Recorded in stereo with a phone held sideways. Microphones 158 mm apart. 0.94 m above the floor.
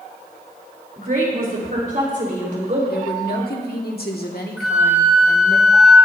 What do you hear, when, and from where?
1.0 s a woman speaking: 65° right (ahead or behind), 3.5 m; by 2.8 s 55° right (ahead or behind), 4.5 m
2.9 s a woman speaking: 75° left (ahead or behind), 1.8 m
4.6 s a flute: 5° right (ahead or behind), 4 m